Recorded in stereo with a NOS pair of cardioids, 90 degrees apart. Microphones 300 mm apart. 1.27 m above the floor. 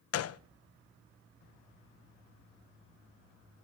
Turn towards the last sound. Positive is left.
turn(degrees=50)